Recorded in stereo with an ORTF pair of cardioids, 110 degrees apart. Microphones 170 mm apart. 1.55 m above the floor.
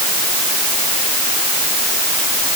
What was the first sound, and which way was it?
Only background noise.